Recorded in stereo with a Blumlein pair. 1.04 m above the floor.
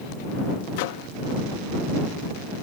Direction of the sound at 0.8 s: 50° left.